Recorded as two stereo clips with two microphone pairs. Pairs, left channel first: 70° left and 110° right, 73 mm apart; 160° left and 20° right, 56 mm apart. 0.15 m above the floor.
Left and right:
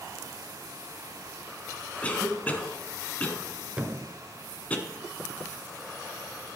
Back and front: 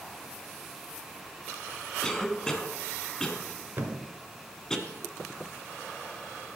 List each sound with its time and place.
2.0 s a cough: 100° left, 1.1 m
3.8 s a thud: 45° right, 1.1 m